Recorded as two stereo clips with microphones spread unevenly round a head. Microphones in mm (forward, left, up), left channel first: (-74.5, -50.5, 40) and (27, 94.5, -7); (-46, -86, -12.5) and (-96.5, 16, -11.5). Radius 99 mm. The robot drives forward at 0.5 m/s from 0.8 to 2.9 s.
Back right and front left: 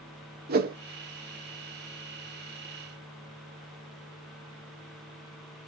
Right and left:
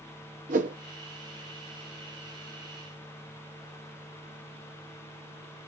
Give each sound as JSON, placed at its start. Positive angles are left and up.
{"t": 0.5, "sound": "a whoosh", "azimuth_deg": 90, "distance_m": 0.5}